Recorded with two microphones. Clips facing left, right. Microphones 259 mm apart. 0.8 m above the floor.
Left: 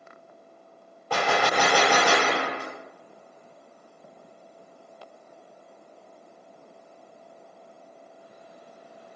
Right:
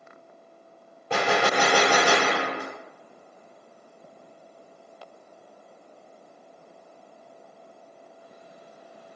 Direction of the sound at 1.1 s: 25° right (ahead or behind).